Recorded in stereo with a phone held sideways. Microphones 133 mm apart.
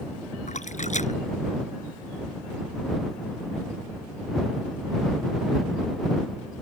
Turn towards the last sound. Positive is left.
turn(degrees=60)  # may be behind; listen again after turning